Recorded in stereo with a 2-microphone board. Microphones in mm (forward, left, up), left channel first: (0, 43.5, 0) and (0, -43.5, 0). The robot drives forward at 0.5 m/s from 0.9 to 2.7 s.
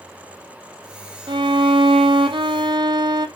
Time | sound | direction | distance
1.3 | a violin | 70° right (ahead or behind) | 0.9 m